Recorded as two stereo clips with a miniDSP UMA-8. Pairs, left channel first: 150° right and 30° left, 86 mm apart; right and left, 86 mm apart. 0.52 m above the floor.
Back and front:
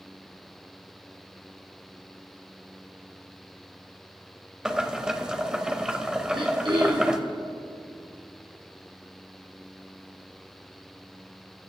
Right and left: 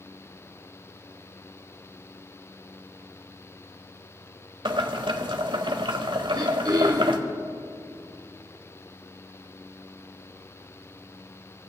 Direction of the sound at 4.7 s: 110° left.